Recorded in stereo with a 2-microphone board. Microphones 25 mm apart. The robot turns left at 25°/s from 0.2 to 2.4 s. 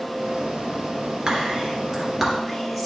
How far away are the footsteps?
No footsteps in this recording.